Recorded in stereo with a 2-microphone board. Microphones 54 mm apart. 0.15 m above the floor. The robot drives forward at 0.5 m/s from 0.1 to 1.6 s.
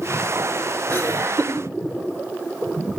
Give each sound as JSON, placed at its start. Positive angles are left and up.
{"t": 0.9, "sound": "laughter", "side_deg": -50, "distance_m": 5.5}